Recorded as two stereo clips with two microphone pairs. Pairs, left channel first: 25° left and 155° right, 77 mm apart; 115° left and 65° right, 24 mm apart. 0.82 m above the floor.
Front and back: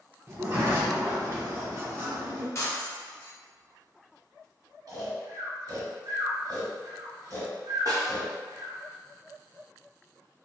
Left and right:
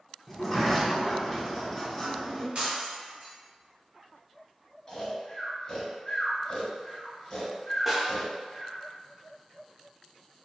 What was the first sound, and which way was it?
A sliding door, 160° right.